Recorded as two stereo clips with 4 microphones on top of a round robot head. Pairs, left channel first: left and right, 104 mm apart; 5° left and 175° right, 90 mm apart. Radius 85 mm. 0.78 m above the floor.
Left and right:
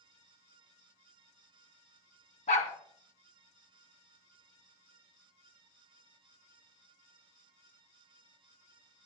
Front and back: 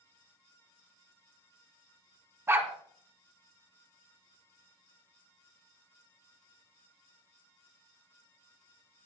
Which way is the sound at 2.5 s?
125° left.